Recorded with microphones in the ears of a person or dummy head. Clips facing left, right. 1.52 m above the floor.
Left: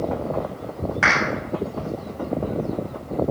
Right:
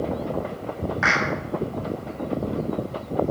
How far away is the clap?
About 9.5 m.